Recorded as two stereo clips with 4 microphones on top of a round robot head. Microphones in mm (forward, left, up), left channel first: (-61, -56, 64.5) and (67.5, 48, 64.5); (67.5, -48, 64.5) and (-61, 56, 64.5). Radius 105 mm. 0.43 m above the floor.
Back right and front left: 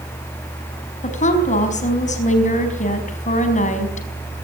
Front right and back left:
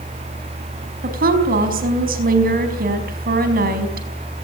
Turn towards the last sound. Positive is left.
turn(degrees=175)